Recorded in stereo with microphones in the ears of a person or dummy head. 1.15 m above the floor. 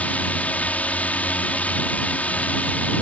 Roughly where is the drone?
Centre.